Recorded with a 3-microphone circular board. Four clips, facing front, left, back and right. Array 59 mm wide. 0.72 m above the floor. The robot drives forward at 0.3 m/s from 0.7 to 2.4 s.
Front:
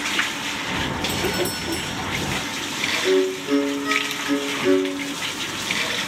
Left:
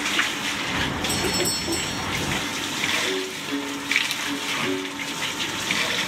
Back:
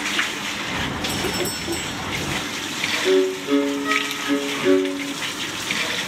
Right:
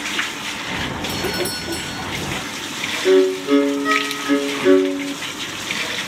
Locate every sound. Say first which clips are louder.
1.1 s a doorbell: right 2 dB, front 1 dB; 70° right; by 2.1 s 90° right
3.0 s a violin: right 14 dB, back 2 dB; 95° right